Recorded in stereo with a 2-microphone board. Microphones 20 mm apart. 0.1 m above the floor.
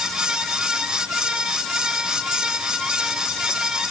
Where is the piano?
No piano in this recording.